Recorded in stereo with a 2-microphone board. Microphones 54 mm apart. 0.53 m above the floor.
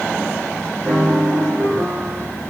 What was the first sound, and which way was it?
A piano, 50° right (ahead or behind).